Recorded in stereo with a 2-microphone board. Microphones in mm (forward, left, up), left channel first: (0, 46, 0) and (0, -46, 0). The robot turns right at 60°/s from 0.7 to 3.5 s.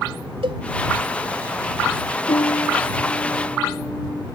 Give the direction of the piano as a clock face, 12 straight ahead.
9 o'clock.